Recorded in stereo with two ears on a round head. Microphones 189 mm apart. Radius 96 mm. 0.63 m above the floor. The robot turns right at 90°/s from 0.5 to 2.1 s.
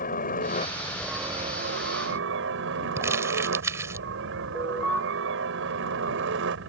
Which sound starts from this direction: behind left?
A helicopter, at 0.0 s.